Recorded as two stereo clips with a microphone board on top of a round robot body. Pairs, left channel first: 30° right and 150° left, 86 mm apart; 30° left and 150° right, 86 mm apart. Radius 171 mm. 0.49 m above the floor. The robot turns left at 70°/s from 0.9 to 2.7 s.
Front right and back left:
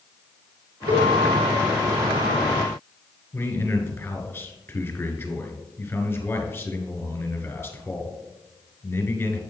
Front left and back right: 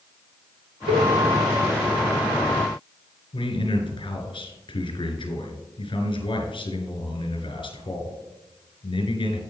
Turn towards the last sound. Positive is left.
turn(degrees=30)